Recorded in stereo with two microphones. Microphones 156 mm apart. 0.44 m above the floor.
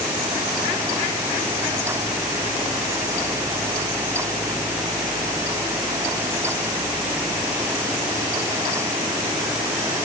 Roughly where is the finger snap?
No finger snap in this recording.